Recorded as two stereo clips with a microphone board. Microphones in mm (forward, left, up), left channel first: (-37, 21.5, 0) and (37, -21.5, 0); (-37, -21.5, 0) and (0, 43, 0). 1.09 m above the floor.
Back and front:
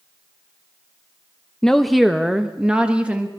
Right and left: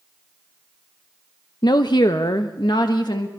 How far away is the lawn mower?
No lawn mower in this recording.